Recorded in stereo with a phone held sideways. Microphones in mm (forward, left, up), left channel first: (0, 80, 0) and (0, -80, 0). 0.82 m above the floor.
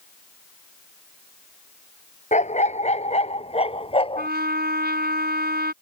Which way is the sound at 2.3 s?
45° left (ahead or behind).